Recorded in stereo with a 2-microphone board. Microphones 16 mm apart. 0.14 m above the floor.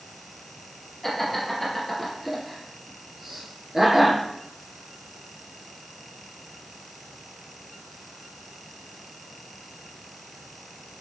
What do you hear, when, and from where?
1.0 s laughter: 5° right (ahead or behind), 3 m; by 4.2 s 35° right (ahead or behind), 2.5 m